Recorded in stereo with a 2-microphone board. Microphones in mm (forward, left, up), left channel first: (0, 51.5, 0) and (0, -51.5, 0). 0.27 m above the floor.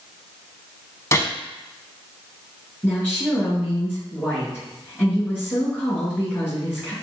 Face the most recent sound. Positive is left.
turn(degrees=20)  # may be behind; listen again after turning